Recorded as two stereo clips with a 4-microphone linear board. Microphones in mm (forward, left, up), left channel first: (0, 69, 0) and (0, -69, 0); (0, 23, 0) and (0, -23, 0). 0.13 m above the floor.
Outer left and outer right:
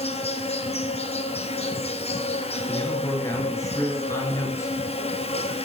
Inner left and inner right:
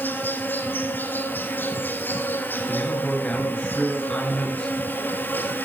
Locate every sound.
0.0 s an insect: 50° left (ahead or behind), 0.8 m
2.7 s a man speaking: 20° left (ahead or behind), 2.5 m